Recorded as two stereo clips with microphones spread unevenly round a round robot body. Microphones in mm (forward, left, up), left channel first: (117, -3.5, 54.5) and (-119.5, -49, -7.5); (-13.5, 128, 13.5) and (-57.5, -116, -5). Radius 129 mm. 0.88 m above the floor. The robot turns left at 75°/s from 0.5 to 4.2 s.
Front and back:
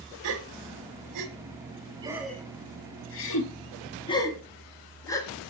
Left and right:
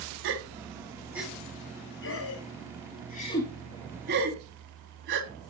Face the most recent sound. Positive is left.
turn(degrees=-55)